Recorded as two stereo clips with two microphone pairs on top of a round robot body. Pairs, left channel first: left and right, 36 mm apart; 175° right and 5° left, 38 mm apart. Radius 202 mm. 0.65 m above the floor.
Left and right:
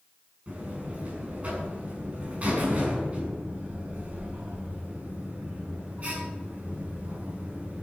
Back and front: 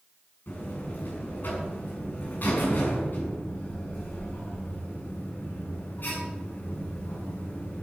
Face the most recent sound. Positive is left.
turn(degrees=-140)